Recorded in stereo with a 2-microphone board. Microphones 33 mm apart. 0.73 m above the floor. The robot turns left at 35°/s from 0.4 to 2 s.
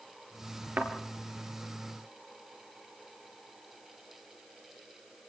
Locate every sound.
0.8 s a thud: 70° right (ahead or behind), 3.5 m; by 0.9 s 65° right (ahead or behind), 3.5 m